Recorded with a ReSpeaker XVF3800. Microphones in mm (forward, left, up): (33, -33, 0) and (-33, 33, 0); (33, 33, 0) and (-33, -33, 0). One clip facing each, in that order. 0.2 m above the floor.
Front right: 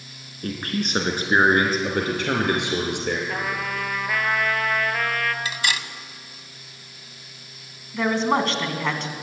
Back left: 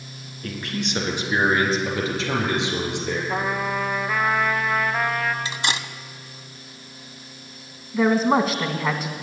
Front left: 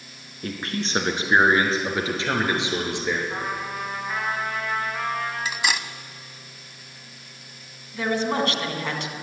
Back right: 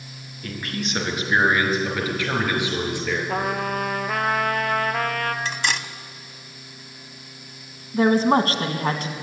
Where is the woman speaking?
145° right, 1.7 m.